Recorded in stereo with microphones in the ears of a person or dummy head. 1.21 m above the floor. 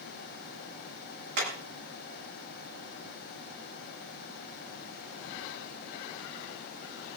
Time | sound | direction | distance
1.4 | hammering | 65° right (ahead or behind) | 8.5 m